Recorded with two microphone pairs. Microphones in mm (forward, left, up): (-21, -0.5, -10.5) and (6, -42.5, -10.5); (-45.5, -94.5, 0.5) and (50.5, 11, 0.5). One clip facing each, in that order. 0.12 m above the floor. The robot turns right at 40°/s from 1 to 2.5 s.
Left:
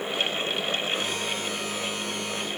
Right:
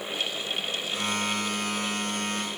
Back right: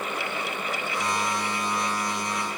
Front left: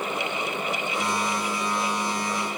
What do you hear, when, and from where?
Only background noise.